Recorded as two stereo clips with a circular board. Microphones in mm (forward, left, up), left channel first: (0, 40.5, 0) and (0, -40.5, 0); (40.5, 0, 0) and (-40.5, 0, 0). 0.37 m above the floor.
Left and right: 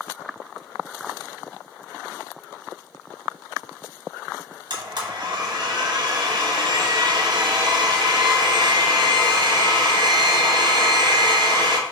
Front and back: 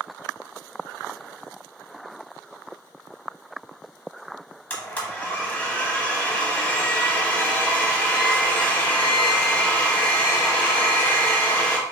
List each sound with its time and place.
4.7 s a blender: 70° right, 1.0 m